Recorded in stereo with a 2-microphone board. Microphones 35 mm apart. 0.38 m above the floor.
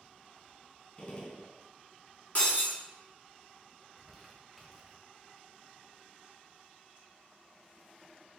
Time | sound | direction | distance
1.0 | a gunshot | 30° left (ahead or behind) | 0.9 m
2.4 | breaking glass | 40° left (ahead or behind) | 2 m
3.8 | crumpling | 5° left (ahead or behind) | 1.0 m